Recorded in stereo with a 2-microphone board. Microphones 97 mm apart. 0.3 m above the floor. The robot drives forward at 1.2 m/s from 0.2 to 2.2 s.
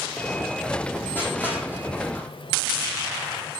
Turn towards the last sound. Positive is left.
turn(degrees=25)  # may be behind; listen again after turning